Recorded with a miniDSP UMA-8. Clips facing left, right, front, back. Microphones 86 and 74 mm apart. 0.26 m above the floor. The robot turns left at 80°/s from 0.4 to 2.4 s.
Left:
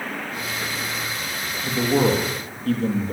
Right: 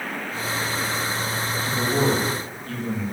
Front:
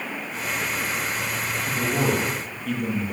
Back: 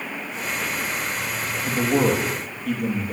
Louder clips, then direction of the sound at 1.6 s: Left 3 dB, back 5 dB; 155° left.